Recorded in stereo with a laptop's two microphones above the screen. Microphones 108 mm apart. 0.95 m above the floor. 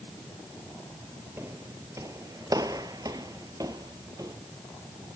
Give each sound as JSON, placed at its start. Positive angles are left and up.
{"t": 1.4, "sound": "footsteps", "side_deg": -25, "distance_m": 1.2}